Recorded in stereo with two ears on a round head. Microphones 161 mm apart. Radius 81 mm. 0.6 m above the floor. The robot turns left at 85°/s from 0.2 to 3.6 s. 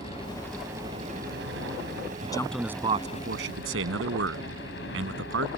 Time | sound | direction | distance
0.0 | a helicopter | 35° left | ?
2.2 | a man speaking | 30° left | ?